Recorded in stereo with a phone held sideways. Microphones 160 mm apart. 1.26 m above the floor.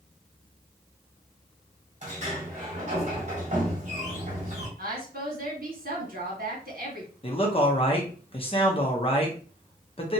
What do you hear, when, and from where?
2.0 s a sliding door: 50° right (ahead or behind), 1.7 m
4.8 s a woman speaking: 70° right (ahead or behind), 1.4 m
7.2 s a man speaking: 35° left (ahead or behind), 1.0 m